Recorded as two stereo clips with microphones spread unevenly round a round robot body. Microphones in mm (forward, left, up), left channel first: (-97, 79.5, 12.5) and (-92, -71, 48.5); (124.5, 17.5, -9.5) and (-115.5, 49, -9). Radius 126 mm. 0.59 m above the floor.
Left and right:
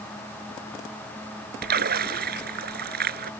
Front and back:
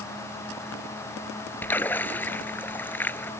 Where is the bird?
No bird in this recording.